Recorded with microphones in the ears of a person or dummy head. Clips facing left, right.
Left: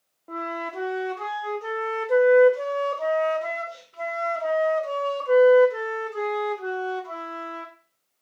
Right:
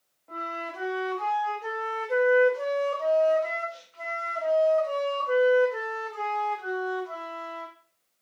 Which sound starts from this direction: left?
A flute, at 0.3 s.